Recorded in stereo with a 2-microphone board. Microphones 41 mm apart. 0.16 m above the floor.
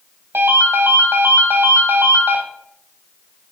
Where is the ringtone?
65° right (ahead or behind), 3 m.